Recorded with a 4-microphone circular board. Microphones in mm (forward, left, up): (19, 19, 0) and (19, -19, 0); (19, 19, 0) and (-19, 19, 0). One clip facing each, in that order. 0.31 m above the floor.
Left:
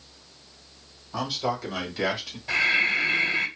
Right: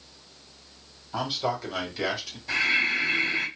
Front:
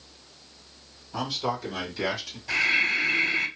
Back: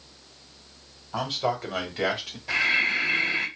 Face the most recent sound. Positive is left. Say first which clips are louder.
# left 2 dB, even
turn(degrees=125)